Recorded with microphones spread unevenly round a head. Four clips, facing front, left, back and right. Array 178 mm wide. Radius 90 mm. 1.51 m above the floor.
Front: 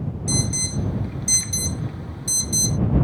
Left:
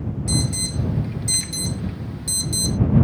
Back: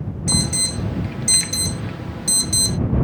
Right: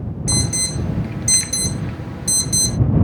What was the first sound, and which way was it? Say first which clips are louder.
An alarm: right 2 dB, back 3 dB; 140° right.